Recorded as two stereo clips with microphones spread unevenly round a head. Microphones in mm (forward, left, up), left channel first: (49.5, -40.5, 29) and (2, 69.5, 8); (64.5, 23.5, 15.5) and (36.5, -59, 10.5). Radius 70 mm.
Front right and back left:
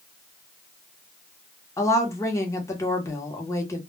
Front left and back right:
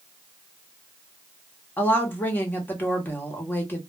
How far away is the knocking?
No knocking in this recording.